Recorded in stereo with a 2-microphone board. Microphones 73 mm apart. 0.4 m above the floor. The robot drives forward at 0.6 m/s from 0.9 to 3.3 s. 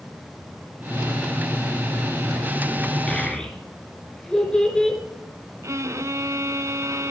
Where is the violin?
45° right (ahead or behind), 0.8 m.